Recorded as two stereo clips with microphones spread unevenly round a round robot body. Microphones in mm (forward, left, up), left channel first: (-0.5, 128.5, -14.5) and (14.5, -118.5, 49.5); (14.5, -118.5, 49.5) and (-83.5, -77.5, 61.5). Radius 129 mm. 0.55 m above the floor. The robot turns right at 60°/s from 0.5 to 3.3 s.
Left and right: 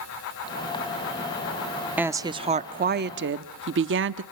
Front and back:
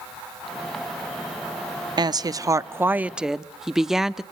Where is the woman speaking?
170° left, 1.0 m; by 4.2 s 110° right, 1.0 m.